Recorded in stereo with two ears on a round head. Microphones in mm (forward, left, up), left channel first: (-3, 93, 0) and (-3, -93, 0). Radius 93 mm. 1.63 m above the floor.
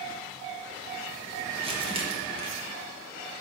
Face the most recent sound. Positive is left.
turn(degrees=-25)  # may be behind; listen again after turning